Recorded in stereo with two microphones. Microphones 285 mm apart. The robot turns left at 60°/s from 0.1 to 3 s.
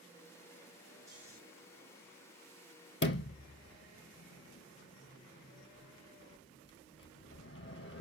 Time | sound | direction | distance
1.1 | snoring | centre (ahead or behind) | 3 m
3.0 | a sliding door | 50° left (ahead or behind) | 0.5 m